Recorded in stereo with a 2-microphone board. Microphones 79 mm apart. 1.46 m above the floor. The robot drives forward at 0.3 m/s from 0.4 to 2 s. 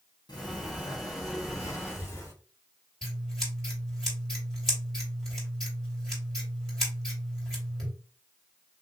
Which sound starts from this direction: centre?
Scissors, at 3.0 s.